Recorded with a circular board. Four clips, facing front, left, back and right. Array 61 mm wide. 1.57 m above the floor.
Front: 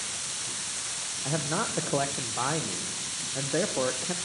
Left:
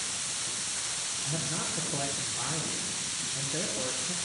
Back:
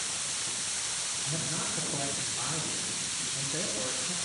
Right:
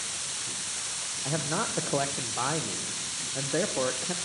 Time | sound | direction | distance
1.2 | a man speaking | 45° right | 0.9 m